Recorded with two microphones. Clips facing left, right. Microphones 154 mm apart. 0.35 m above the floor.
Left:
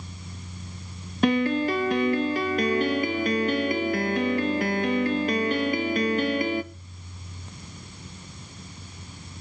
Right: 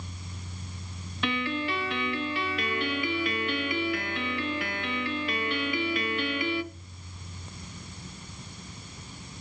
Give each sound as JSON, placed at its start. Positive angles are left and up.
{"t": 1.2, "sound": "a piano", "side_deg": 40, "distance_m": 0.5}